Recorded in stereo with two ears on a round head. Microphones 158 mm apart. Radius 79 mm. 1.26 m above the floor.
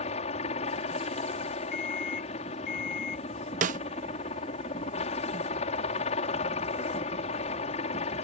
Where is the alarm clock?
60° left (ahead or behind).